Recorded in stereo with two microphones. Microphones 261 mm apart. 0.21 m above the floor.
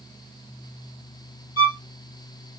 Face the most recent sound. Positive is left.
turn(degrees=65)  # may be behind; listen again after turning